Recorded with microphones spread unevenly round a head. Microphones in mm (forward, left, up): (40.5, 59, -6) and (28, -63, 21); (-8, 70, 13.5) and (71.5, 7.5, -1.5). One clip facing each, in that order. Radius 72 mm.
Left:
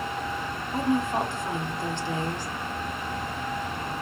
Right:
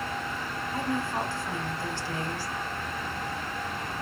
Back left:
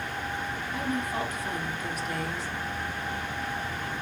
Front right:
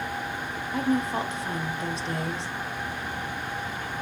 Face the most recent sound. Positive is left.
turn(degrees=20)